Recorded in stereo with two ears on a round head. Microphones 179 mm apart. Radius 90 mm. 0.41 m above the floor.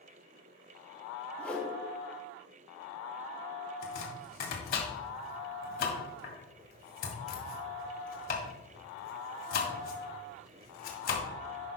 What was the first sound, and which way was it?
A whoosh, 10° left (ahead or behind).